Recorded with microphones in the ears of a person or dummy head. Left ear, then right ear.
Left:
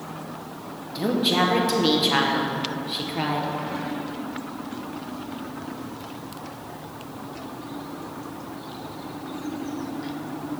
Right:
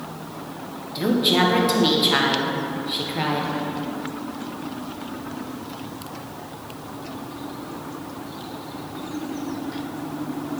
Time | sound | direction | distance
0.9 | a woman speaking | 5° left (ahead or behind) | 1.3 m